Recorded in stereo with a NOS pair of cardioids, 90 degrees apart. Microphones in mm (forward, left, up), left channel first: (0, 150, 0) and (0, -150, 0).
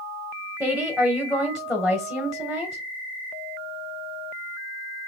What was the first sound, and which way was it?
A woman speaking, straight ahead.